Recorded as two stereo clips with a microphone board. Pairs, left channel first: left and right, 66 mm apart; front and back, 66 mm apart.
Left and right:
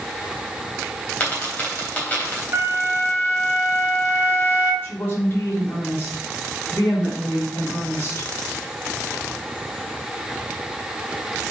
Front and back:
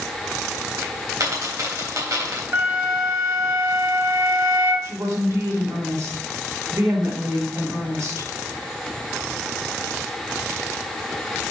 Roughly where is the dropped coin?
Behind left.